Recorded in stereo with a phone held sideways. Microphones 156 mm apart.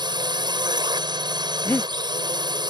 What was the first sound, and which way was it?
A drone, 30° right (ahead or behind).